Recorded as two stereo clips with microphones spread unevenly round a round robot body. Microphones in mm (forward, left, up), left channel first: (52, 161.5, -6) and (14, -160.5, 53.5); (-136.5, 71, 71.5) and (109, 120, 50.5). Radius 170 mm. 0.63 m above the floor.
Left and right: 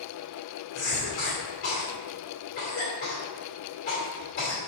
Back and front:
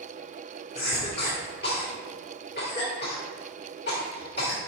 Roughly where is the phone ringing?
No phone ringing in this recording.